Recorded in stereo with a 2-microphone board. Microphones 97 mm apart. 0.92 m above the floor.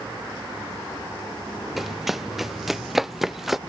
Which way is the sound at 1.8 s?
Centre (ahead or behind).